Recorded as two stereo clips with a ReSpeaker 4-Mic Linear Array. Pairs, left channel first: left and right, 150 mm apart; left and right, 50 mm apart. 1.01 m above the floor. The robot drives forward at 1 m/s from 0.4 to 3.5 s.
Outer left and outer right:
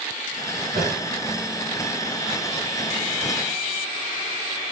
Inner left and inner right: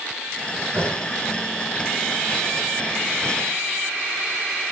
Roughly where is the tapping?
Right.